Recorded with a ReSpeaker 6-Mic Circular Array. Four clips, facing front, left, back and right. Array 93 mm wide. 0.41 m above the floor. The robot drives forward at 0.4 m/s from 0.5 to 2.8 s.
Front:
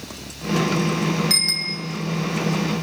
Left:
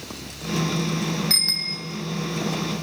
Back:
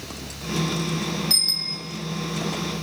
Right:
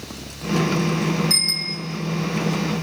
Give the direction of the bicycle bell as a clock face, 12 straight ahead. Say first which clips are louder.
Right 3 dB, front 6 dB; 10 o'clock.